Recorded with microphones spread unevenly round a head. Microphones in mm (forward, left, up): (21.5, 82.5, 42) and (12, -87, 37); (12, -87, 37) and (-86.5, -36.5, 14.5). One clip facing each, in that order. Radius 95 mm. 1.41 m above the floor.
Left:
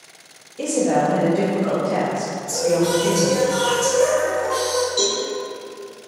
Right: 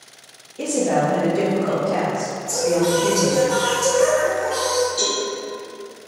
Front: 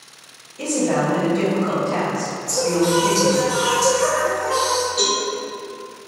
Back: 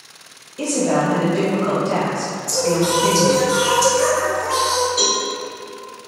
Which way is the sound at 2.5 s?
170° left.